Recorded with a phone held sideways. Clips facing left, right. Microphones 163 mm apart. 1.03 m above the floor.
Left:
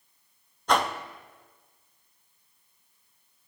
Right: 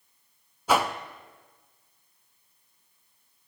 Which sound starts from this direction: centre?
A whoosh, at 0.7 s.